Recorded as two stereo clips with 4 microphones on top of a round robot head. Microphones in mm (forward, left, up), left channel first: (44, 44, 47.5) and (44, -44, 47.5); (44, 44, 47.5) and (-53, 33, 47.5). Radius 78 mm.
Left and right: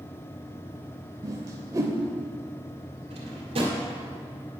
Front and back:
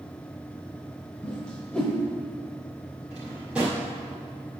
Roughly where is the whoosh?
Right.